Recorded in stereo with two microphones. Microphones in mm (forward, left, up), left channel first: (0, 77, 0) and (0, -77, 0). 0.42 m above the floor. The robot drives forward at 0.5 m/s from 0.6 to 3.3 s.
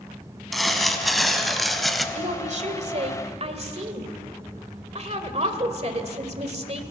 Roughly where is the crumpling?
Centre.